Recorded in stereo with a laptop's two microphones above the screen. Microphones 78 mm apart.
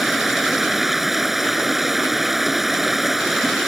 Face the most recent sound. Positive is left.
turn(degrees=0)  # may be behind; listen again after turning